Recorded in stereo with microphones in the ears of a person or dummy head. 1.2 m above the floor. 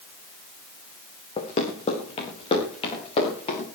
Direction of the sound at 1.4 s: 30° left (ahead or behind).